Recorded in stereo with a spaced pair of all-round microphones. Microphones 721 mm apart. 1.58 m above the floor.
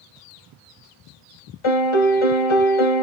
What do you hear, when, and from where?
1.6 s a piano: 45° left (ahead or behind), 0.7 m